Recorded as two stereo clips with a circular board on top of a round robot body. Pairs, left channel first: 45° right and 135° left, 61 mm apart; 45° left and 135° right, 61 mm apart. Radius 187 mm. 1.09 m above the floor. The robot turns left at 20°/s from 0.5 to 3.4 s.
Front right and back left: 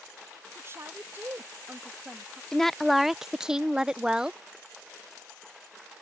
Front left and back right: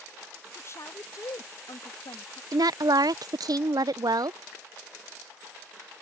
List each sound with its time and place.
0.6 s a woman speaking: 90° left; by 2.4 s 55° left
2.5 s a woman speaking: 125° right; by 4.4 s 145° right